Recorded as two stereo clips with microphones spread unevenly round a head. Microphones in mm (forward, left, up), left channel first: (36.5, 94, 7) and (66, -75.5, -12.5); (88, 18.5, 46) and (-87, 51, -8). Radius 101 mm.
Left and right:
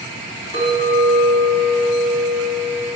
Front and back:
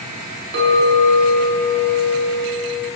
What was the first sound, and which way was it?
A clink, 150° right.